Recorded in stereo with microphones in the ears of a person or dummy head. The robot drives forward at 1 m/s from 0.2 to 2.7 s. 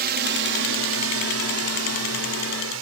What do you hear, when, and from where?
0.0 s a drone: 55° right (ahead or behind); by 2.8 s 65° right (ahead or behind)